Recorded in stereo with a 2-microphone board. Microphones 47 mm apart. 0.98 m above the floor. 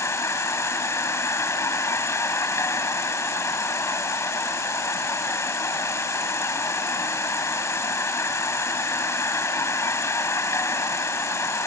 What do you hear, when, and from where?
0.0 s an insect: 70° left (ahead or behind)